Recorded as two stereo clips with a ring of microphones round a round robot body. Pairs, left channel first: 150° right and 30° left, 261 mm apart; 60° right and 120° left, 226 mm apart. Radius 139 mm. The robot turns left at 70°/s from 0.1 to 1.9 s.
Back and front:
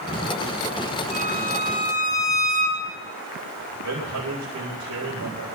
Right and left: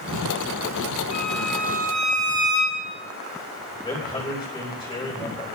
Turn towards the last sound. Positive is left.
turn(degrees=5)